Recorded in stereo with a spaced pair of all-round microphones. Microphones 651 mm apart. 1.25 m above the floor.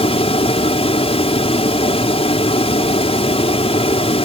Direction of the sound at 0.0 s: 10° left (ahead or behind).